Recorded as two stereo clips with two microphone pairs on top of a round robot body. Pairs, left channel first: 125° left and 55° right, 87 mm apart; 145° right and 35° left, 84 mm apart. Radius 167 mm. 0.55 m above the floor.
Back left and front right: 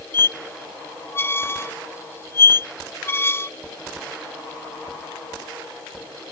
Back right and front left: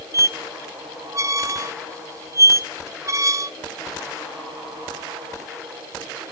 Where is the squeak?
75° left, 0.6 m.